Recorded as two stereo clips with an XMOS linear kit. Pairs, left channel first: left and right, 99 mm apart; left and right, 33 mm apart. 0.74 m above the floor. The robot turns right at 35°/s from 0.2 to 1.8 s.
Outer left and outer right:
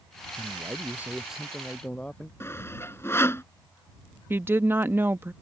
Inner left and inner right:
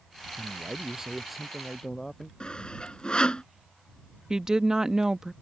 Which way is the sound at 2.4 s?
25° left (ahead or behind).